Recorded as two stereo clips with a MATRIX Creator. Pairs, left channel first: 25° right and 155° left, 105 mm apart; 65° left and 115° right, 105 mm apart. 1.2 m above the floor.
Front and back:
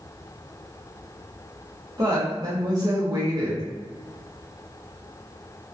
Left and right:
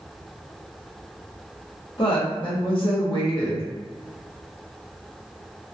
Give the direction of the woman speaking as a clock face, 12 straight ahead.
8 o'clock.